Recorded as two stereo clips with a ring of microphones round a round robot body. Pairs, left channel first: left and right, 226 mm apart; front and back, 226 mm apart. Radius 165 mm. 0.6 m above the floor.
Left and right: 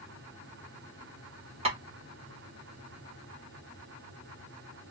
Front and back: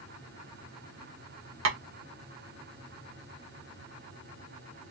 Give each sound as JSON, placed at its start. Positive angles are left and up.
{"t": 1.6, "sound": "tapping", "azimuth_deg": -155, "distance_m": 1.3}